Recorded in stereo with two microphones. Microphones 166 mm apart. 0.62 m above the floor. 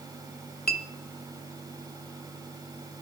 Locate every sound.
0.7 s a clink: 70° left (ahead or behind), 1.2 m